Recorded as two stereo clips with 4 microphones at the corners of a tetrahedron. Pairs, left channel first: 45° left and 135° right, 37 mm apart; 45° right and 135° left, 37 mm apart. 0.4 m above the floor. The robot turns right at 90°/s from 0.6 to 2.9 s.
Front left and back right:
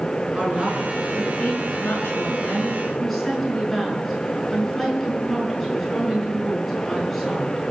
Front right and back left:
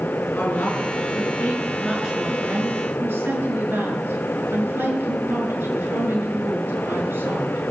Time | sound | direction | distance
0.3 | a woman speaking | 75° right | 6 m